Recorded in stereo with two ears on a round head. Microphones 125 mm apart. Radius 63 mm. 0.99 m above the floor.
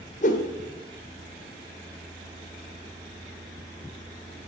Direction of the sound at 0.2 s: 60° left (ahead or behind).